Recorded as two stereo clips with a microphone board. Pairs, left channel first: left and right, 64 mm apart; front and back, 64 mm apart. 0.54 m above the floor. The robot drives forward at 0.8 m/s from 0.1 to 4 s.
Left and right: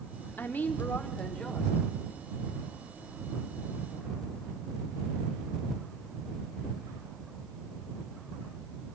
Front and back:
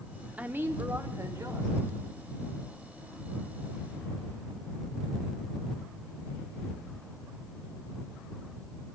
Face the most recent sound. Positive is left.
turn(degrees=175)